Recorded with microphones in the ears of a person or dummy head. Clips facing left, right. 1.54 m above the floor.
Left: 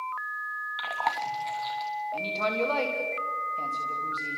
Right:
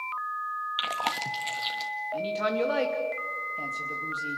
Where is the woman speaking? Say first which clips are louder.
Right 3 dB; 10° right (ahead or behind), 3 m.